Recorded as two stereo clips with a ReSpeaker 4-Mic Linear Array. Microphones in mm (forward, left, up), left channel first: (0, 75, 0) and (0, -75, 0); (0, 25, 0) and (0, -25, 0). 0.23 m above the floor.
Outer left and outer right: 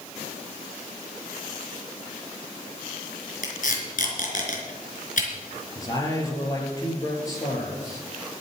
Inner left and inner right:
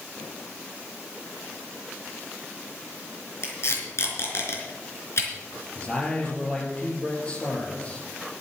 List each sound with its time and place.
3.4 s tape being pulled: 65° left (ahead or behind), 4 m
5.8 s a man speaking: 20° left (ahead or behind), 4.5 m